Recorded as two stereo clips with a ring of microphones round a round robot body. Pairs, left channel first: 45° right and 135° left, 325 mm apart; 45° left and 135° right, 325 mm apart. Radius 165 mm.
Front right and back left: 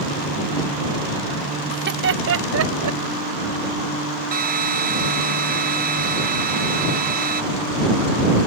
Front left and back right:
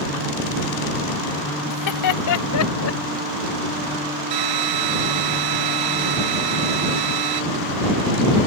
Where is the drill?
160° right.